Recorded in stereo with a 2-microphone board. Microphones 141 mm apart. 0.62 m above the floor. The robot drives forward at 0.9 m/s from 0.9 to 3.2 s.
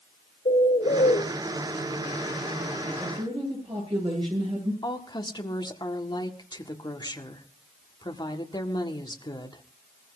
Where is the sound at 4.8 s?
30° left (ahead or behind), 1.7 m.